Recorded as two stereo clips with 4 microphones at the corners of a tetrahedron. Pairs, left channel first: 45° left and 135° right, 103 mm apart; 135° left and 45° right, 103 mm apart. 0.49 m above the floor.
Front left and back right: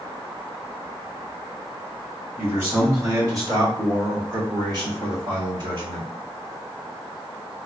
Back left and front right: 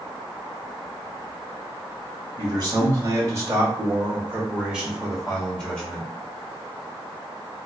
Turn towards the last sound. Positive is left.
turn(degrees=-150)